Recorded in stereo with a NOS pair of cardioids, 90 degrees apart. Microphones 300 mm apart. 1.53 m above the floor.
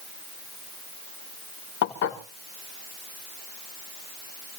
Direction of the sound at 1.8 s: 70° left.